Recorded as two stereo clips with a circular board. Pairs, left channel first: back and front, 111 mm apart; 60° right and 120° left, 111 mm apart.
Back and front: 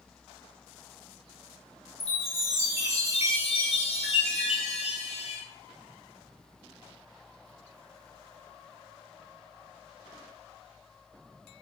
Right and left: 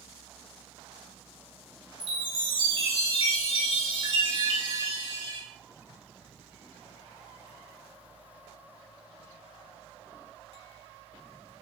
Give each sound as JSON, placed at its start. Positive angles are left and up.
{"t": 2.0, "sound": "a chime", "azimuth_deg": 160, "distance_m": 2.0}